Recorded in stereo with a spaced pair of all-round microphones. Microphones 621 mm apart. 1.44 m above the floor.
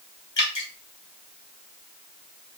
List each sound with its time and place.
0.4 s dripping: 45° left (ahead or behind), 1.6 m